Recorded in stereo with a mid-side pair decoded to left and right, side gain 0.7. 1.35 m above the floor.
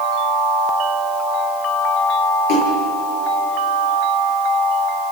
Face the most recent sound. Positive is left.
turn(degrees=65)